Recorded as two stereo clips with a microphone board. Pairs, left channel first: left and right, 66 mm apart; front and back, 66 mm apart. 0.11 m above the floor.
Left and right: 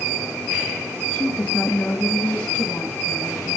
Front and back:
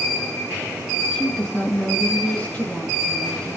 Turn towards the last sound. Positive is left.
turn(degrees=50)